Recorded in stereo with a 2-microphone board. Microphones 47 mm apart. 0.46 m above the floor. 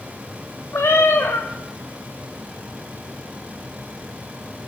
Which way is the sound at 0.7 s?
75° left (ahead or behind).